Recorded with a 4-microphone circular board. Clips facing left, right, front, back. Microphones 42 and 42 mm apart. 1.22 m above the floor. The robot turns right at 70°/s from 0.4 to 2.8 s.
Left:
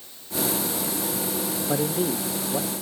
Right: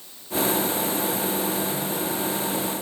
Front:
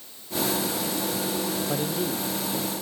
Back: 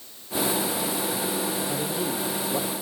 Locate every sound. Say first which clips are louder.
1.7 s a man speaking: left 3 dB, front 1 dB; 75° left, 0.7 m; by 2.7 s 145° left, 0.7 m